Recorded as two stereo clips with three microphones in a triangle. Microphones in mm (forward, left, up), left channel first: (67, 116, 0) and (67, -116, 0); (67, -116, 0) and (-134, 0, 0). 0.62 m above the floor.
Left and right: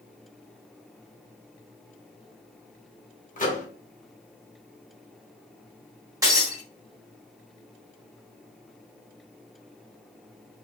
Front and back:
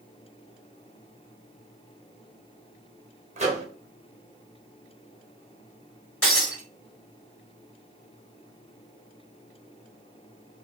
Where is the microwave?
110° left, 0.8 m.